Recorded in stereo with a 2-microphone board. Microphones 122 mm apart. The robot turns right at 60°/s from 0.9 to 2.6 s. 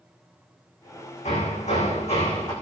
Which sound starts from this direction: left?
Hammering, at 1.2 s.